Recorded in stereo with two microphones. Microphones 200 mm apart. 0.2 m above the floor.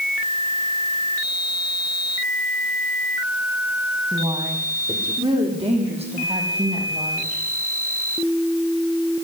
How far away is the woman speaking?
About 7.5 m.